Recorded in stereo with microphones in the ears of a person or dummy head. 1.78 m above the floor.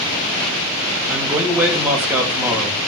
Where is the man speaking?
15° right (ahead or behind), 3.5 m.